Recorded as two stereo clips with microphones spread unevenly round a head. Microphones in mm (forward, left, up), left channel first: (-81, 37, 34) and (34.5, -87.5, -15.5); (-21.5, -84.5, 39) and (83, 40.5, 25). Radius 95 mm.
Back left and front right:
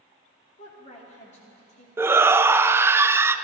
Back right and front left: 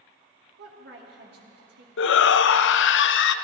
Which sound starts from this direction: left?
A woman speaking, at 0.6 s.